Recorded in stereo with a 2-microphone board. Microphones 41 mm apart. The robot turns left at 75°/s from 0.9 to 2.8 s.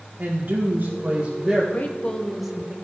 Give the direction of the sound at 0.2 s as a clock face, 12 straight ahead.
4 o'clock.